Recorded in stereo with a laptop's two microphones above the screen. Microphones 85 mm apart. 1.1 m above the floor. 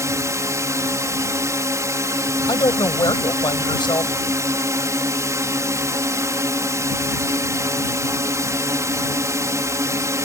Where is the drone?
40° right (ahead or behind).